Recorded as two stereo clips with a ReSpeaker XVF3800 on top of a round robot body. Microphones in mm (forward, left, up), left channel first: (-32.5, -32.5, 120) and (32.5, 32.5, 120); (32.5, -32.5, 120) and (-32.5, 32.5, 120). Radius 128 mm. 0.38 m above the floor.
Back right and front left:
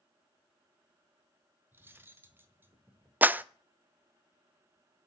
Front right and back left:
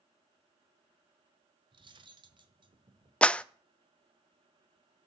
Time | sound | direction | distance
1.7 | cutlery clinking | 110° left | 1.6 m
3.2 | a clap | 10° left | 0.6 m